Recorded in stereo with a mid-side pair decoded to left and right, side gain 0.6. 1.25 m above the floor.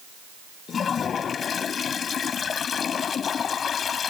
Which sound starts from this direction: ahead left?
A toilet flushing, at 0.7 s.